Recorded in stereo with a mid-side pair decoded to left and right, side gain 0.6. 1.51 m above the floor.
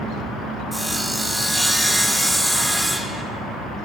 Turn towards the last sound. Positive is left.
turn(degrees=0)